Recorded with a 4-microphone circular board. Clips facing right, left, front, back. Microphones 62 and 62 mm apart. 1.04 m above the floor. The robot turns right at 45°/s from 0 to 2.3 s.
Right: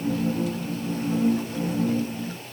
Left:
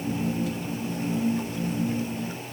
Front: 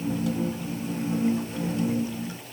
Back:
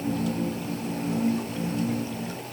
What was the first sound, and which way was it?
Only background noise.